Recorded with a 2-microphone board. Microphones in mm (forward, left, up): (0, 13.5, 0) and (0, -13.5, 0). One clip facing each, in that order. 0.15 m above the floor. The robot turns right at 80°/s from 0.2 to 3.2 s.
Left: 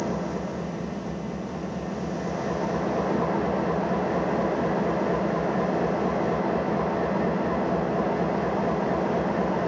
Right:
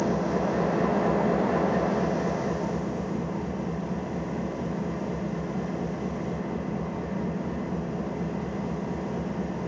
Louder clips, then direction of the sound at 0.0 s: Right 3 dB; 175° right.